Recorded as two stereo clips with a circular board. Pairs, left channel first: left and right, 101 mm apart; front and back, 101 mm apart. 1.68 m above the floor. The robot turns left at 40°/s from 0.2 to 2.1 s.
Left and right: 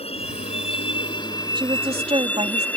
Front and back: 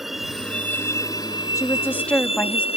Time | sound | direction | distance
0.0 | a vehicle | 90° left | ?
1.6 | a woman speaking | 55° right | ?